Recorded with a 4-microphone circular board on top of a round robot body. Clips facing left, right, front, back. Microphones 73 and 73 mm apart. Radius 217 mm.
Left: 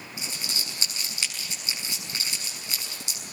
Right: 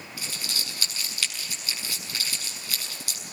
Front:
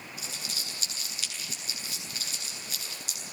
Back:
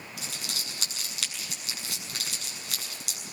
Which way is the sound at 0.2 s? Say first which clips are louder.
Even, back 3 dB; 160° left.